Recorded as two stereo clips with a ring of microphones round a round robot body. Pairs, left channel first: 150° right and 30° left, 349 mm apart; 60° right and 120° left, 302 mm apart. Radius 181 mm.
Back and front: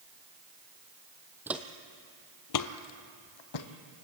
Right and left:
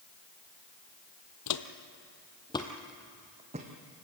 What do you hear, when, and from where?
1.5 s footsteps: 55° right, 1.0 m; by 3.7 s 170° right, 1.5 m